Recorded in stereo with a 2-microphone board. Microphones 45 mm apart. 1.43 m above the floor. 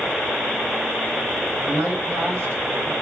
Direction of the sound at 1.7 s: 85° right.